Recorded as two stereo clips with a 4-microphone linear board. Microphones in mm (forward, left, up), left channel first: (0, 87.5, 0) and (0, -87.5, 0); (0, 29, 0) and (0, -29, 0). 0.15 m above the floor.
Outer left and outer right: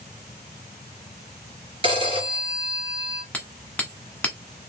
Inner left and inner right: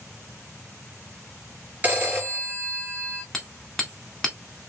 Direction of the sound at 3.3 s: 10° left (ahead or behind).